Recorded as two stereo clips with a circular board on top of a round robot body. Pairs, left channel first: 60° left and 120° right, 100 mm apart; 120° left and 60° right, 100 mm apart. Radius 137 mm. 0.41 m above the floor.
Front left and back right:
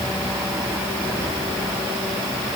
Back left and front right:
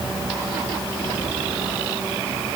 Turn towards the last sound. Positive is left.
No sound to turn to.